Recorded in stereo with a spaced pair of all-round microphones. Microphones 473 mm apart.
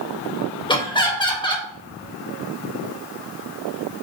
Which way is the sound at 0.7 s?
10° left (ahead or behind).